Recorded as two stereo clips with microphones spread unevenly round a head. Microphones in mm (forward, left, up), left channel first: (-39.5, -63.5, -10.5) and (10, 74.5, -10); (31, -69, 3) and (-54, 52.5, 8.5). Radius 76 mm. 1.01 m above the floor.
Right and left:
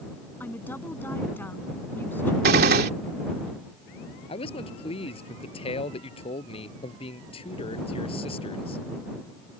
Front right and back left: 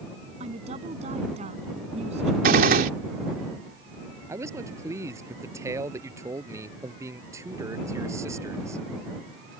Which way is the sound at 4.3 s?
165° right.